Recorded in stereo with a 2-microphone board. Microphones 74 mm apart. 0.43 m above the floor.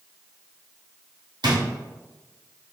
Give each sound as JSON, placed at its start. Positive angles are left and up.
{"t": 1.4, "sound": "a drawer", "side_deg": -75, "distance_m": 1.3}